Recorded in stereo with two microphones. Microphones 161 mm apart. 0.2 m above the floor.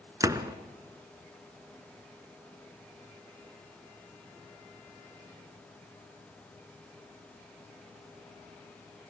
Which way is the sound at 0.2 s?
20° right (ahead or behind).